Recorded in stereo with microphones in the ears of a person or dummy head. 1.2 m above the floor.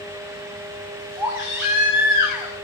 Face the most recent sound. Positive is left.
turn(degrees=-10)  # may be behind; listen again after turning